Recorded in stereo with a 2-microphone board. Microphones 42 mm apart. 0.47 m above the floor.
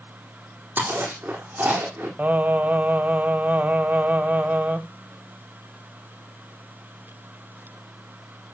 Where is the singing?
40° right (ahead or behind), 1.4 m.